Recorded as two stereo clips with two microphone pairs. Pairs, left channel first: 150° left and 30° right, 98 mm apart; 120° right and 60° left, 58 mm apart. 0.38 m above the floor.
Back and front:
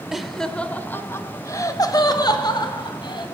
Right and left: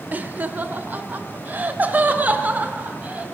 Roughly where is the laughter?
Ahead left.